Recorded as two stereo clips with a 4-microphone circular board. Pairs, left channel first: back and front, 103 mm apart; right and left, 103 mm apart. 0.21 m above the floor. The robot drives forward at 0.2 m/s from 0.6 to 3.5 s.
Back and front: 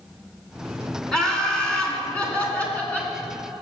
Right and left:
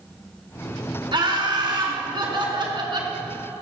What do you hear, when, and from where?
1.1 s laughter: 100° left, 2.5 m; by 3.1 s 110° left, 2.5 m